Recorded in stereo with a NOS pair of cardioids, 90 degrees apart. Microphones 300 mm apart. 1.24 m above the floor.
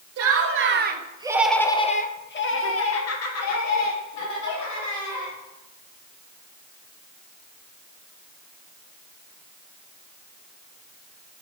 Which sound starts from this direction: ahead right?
Laughter, at 0.2 s.